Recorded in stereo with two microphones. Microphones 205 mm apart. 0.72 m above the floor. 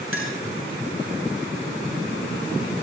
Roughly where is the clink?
Right.